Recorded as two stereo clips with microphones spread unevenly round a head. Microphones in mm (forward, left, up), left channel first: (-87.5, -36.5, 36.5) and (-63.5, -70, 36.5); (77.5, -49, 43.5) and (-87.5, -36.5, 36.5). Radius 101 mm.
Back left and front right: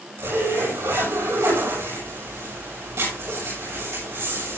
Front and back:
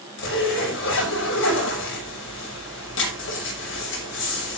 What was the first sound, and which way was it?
A zipper, 5° right.